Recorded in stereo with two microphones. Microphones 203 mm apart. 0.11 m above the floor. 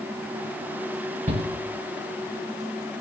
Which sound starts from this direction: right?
A shout, at 1.3 s.